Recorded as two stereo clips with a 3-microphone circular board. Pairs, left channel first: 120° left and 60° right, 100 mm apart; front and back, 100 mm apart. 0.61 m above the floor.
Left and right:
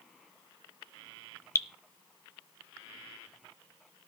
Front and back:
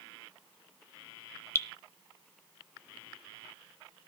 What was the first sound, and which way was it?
Dripping, 60° left.